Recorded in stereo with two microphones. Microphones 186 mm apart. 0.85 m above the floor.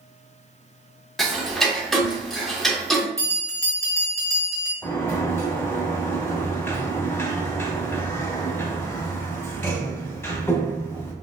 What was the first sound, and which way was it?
Ticking, centre (ahead or behind).